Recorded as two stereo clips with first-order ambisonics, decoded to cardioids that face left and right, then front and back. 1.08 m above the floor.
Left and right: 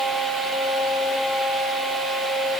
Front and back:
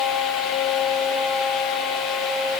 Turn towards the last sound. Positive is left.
No sound to turn to.